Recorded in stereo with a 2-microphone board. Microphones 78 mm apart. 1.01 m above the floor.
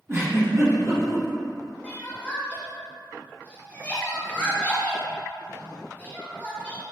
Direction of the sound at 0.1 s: 35° right (ahead or behind).